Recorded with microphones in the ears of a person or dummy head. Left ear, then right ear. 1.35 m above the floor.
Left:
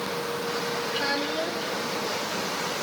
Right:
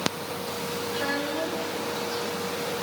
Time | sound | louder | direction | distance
0.9 | a child speaking | even | 45° left (ahead or behind) | 1.3 m